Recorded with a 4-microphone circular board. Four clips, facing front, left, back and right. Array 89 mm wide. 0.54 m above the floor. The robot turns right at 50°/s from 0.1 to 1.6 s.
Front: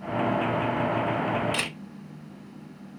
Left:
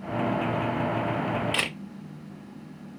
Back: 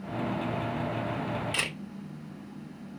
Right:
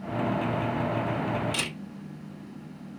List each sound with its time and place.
1.5 s a camera shutter: 90° left, 0.9 m